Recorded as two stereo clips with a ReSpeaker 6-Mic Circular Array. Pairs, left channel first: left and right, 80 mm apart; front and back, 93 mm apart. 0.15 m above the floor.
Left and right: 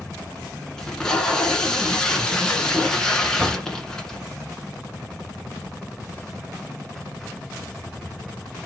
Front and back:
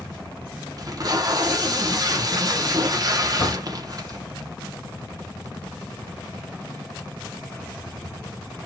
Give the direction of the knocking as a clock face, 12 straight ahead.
1 o'clock.